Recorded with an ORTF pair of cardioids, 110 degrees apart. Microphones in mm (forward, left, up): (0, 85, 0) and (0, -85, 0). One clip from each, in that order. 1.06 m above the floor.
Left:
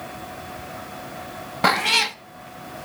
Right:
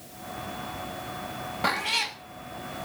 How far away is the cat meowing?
About 0.9 m.